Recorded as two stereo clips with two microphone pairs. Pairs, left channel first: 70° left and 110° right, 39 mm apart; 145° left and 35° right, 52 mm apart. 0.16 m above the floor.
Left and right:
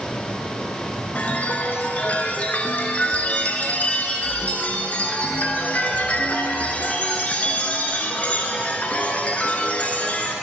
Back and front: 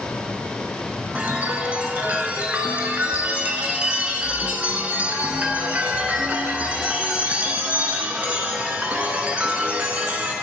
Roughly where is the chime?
Ahead left.